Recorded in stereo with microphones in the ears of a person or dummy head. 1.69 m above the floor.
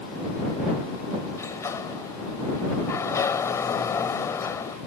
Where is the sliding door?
15° left (ahead or behind).